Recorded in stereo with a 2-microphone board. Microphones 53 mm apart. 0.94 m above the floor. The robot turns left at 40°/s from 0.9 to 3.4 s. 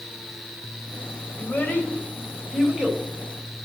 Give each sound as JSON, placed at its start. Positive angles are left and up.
{"t": 1.4, "sound": "a child speaking", "side_deg": 45, "distance_m": 3.5}